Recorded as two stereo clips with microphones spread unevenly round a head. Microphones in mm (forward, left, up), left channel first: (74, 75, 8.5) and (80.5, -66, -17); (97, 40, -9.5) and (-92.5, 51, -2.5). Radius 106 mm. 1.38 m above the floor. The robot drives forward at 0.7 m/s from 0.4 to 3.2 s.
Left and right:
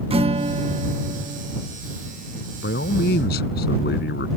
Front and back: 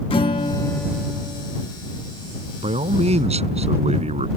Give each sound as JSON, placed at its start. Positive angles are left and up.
{"t": 0.1, "sound": "a guitar", "azimuth_deg": -55}
{"t": 2.6, "sound": "a man speaking", "azimuth_deg": 120}